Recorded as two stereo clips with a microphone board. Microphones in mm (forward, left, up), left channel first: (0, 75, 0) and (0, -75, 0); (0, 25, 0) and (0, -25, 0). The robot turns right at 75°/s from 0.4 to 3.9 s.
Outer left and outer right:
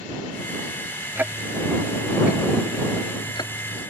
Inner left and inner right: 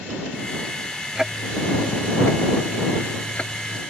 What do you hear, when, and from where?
1.1 s ticking: 15° right (ahead or behind); by 3.8 s 5° right (ahead or behind)